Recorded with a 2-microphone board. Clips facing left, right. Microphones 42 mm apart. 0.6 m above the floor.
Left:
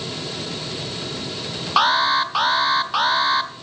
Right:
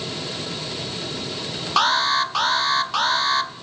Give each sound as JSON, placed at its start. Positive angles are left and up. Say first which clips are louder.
{"t": 1.8, "sound": "an alarm", "louder": "left 2 dB", "side_deg": 10, "distance_m": 0.7}